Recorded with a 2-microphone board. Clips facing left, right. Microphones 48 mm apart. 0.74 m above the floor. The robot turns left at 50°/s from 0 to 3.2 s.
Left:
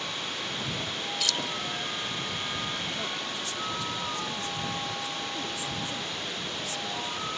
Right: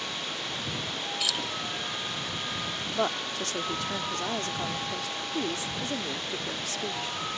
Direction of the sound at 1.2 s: 10° right (ahead or behind).